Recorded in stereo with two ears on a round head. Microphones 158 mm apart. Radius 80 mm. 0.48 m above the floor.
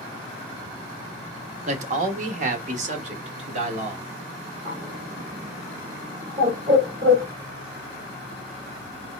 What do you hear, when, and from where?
1.7 s a man speaking: 40° right (ahead or behind), 1.0 m
4.7 s a bird: 35° right (ahead or behind), 2.5 m